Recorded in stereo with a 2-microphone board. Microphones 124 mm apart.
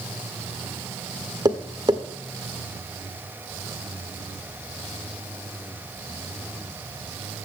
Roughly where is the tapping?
Right.